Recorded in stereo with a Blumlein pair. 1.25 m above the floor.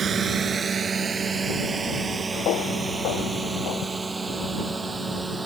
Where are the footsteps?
40° left.